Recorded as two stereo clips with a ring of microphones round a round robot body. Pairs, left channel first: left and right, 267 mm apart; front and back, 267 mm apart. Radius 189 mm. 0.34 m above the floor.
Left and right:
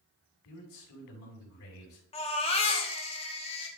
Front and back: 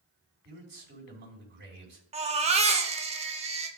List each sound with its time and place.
0.5 s a man speaking: 135° left, 3.5 m
2.1 s a baby crying: 135° left, 1.0 m